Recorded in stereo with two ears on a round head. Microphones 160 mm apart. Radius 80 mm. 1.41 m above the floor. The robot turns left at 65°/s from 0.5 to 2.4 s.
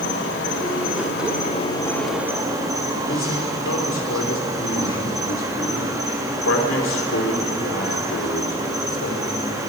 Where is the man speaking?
90° left, 4 m.